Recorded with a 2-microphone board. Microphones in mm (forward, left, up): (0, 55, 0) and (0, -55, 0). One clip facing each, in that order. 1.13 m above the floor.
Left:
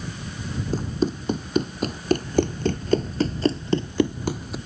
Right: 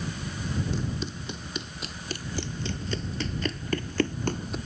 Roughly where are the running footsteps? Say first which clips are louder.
Left 8 dB; left.